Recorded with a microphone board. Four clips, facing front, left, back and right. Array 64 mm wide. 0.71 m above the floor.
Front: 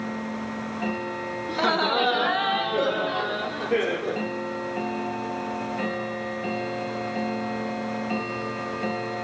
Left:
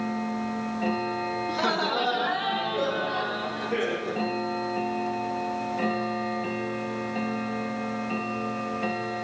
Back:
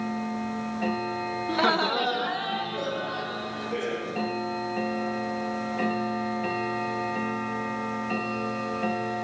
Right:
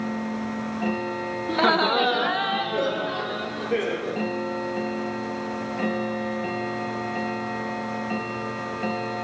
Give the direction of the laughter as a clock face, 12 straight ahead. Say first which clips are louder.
Right 7 dB, front 1 dB; 4 o'clock.